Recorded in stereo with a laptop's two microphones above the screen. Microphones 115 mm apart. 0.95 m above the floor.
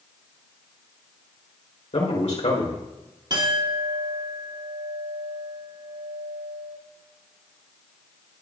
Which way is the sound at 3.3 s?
40° right (ahead or behind).